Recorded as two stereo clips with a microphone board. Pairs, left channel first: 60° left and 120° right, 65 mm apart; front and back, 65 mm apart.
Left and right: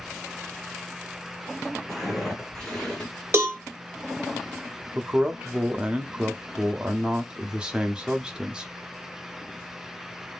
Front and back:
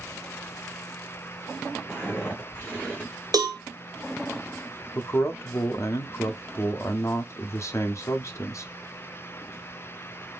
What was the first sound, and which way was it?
Footsteps, 20° right.